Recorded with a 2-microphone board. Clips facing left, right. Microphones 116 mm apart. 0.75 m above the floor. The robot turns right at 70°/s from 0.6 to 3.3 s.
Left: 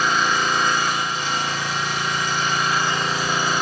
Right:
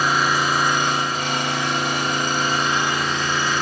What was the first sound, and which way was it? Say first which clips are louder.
An engine running: right 1 dB; 175° right.